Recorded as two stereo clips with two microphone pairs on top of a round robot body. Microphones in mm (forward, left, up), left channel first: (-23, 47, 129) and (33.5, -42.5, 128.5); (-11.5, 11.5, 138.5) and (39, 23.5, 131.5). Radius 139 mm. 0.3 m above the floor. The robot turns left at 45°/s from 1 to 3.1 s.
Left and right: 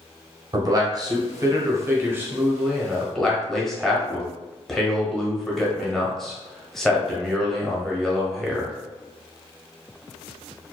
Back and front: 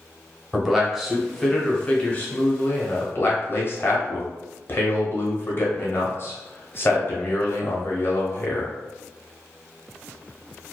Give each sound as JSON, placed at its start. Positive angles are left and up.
{"t": 0.5, "sound": "a man speaking", "azimuth_deg": -60, "distance_m": 1.0}